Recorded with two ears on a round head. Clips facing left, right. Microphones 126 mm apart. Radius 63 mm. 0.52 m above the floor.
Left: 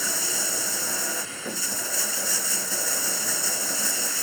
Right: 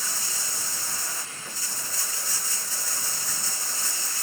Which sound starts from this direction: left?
Running water, at 0.0 s.